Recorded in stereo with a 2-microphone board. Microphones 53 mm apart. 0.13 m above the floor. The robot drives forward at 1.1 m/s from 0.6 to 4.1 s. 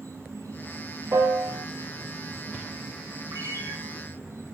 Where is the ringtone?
80° right, 7.5 m; by 3.7 s 75° right (ahead or behind), 7.5 m.